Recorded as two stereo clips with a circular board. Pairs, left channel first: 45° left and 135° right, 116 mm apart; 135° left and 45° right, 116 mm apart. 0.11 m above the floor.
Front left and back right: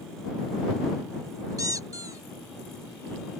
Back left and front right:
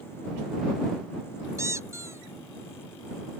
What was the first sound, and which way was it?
A squeak, 95° right.